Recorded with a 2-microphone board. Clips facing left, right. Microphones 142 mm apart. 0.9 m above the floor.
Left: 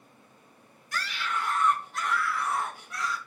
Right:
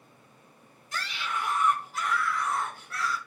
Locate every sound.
0.9 s a scream: 25° right (ahead or behind), 3.5 m; by 3.2 s 20° left (ahead or behind), 3.5 m